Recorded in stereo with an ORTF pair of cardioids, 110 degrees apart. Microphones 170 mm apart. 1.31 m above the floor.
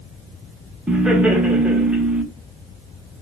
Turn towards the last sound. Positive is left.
turn(degrees=-5)